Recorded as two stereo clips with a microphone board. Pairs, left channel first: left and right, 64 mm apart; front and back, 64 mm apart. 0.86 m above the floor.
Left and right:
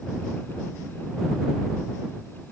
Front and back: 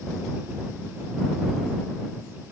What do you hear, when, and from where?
Only background noise.